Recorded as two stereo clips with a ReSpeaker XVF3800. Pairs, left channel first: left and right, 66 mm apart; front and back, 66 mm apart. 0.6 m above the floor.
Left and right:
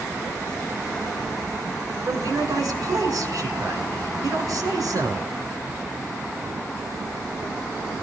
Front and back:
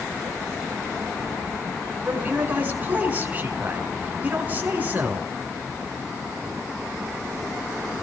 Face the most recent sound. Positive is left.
turn(degrees=-115)